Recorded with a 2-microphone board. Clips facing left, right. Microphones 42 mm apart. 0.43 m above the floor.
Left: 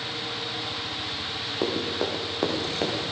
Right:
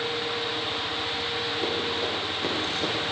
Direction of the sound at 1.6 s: 75° left (ahead or behind).